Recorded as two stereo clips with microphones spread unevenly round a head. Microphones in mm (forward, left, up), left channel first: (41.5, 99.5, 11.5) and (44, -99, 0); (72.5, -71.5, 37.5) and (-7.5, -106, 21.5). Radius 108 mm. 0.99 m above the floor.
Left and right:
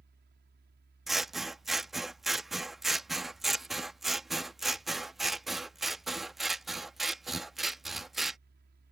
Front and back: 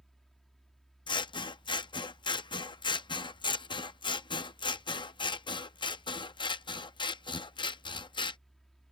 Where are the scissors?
Straight ahead.